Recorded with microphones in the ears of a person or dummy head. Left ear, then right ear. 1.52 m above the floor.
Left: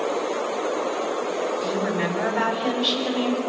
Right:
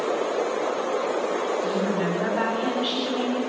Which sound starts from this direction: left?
A woman speaking, at 1.6 s.